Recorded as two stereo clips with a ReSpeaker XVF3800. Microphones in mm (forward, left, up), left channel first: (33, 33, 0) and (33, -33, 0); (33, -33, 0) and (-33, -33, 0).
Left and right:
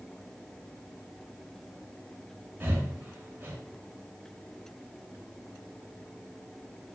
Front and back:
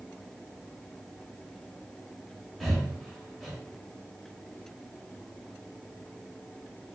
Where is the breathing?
90° right, 0.6 m.